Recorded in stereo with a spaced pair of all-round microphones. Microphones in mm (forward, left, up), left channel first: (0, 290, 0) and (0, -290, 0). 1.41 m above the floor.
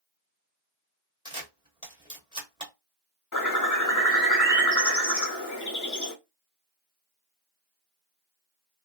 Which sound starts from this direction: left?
A bird, at 3.3 s.